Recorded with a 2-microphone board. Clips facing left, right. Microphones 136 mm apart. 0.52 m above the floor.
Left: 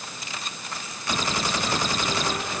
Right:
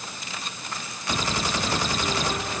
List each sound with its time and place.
Only background noise.